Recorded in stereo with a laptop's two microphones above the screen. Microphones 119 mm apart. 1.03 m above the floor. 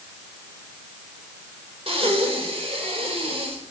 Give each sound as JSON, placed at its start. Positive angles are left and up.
{"t": 1.9, "sound": "breathing", "side_deg": -55, "distance_m": 2.0}